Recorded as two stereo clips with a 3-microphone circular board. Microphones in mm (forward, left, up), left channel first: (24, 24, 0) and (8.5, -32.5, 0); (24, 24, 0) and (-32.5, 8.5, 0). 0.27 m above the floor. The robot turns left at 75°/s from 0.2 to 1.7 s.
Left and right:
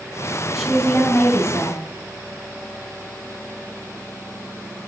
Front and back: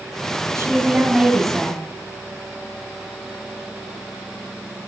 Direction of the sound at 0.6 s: 170° left.